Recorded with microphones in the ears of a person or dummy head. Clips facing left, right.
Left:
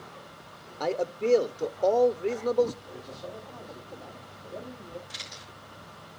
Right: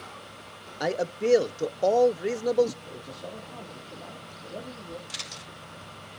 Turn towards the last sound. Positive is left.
turn(degrees=-70)  # may be behind; listen again after turning